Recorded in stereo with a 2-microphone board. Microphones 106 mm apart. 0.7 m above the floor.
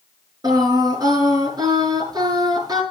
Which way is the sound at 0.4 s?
40° right (ahead or behind).